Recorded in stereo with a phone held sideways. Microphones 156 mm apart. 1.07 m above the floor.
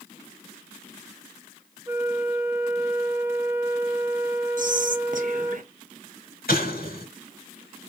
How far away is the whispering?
About 1.1 m.